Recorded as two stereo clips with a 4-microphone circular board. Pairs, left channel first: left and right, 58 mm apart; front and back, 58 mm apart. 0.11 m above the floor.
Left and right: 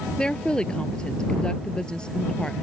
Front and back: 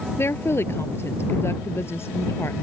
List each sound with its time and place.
0.2 s a woman speaking: 20° left